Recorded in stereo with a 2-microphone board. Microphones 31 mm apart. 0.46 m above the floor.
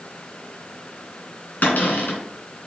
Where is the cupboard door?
60° left (ahead or behind), 2.5 m.